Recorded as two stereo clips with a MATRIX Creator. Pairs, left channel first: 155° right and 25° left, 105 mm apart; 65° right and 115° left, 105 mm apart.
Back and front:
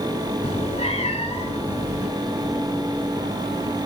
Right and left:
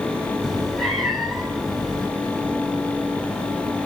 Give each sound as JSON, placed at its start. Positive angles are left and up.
{"t": 0.4, "sound": "a cat meowing", "azimuth_deg": -160, "distance_m": 5.5}